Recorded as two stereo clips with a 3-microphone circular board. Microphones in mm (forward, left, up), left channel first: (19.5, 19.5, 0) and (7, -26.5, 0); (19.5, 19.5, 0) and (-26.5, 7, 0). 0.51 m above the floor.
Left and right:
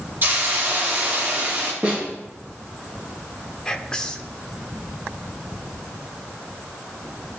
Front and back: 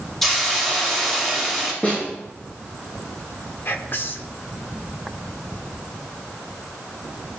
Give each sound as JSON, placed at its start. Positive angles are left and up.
{"t": 0.2, "sound": "a hiss", "azimuth_deg": -65, "distance_m": 3.0}
{"t": 1.8, "sound": "a snare drum", "azimuth_deg": -40, "distance_m": 4.0}
{"t": 3.6, "sound": "whispering", "azimuth_deg": 5, "distance_m": 1.0}